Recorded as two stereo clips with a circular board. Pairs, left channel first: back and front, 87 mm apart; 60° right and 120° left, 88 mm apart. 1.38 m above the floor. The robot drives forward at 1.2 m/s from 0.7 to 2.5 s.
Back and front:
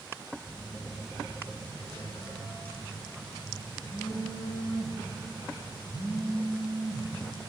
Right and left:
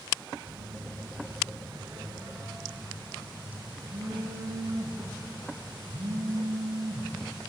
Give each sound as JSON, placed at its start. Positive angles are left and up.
{"t": 0.5, "sound": "a phone buzzing", "azimuth_deg": 140, "distance_m": 1.7}